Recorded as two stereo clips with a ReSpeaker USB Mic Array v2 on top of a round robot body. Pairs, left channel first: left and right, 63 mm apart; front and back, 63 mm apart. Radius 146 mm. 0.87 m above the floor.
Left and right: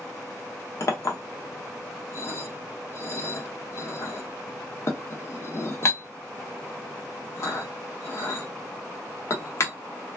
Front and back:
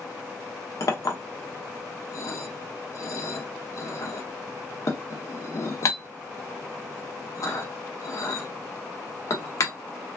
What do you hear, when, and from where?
0.8 s a clink: 40° left, 0.6 m